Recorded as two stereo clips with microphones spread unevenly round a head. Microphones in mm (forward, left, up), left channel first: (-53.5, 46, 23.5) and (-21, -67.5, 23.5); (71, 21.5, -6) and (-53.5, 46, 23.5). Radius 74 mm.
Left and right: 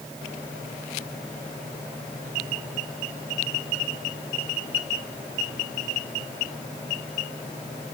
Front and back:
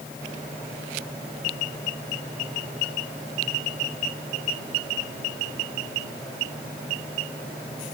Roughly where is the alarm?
No alarm in this recording.